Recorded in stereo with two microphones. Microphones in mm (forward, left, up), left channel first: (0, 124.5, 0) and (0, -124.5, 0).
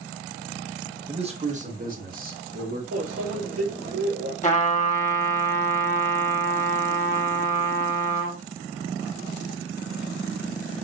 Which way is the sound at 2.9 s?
65° right (ahead or behind).